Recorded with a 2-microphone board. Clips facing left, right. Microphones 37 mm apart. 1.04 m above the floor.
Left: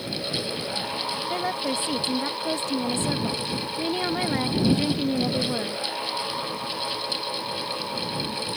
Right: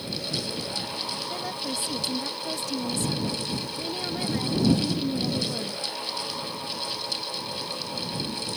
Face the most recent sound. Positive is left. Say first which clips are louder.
# left 5 dB
turn(degrees=40)  # may be behind; listen again after turning